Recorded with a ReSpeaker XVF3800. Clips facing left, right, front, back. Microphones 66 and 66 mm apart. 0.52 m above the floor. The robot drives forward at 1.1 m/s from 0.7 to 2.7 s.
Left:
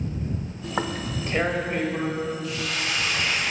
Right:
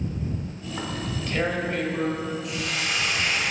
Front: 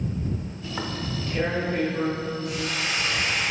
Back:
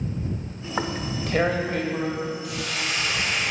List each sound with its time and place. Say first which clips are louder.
0.6 s tearing paper: left 4 dB, back 4 dB; 115° left, 0.5 m; by 2.3 s 170° left, 2 m
2.4 s a hiss: even, front 1 dB; 165° right, 2.5 m